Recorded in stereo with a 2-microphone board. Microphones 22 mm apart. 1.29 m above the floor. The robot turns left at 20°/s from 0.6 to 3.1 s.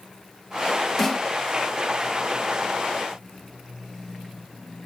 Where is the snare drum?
10° left (ahead or behind), 3 m; by 1.3 s centre (ahead or behind), 3 m.